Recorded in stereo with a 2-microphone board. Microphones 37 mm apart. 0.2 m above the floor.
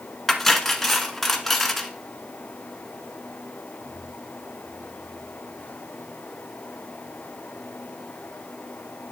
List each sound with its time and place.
0.3 s cutlery clinking: 5° left (ahead or behind), 1.3 m